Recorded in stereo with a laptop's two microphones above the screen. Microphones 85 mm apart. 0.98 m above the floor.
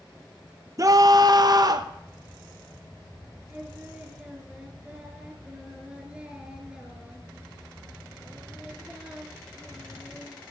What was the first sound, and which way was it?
A scream, 40° right (ahead or behind).